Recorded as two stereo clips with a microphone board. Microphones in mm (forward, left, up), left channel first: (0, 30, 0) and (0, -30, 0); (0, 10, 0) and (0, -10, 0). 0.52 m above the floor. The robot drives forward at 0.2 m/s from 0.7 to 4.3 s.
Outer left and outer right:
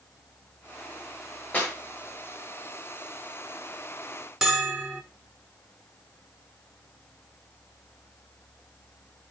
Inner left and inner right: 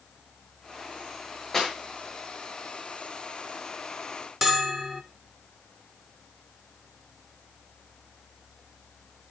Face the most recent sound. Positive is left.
turn(degrees=-10)  # may be behind; listen again after turning